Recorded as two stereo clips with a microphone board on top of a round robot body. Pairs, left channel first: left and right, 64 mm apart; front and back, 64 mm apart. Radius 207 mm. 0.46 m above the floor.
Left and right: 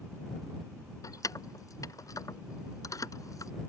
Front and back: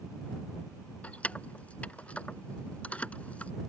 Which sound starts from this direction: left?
Keys jangling, at 1.0 s.